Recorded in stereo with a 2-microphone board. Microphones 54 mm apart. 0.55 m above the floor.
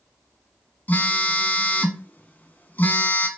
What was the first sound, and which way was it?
A phone buzzing, 30° left (ahead or behind).